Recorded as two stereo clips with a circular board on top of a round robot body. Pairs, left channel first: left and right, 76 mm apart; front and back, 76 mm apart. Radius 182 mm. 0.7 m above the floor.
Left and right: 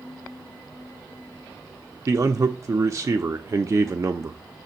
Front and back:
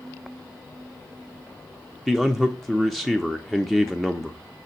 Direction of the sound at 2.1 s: 85° right.